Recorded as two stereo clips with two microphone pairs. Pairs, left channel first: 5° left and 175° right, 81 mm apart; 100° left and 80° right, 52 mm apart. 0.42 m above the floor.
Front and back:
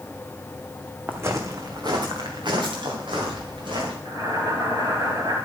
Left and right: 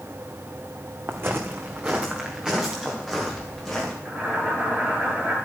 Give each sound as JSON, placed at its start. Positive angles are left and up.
{"t": 1.1, "sound": "footsteps", "azimuth_deg": -115, "distance_m": 1.5}
{"t": 4.0, "sound": "boiling", "azimuth_deg": -140, "distance_m": 8.0}